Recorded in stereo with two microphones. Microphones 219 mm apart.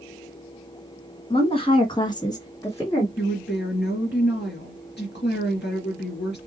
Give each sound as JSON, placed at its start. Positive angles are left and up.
{"t": 1.3, "sound": "a woman speaking", "side_deg": 25, "distance_m": 1.8}
{"t": 3.2, "sound": "a woman speaking", "side_deg": 50, "distance_m": 2.5}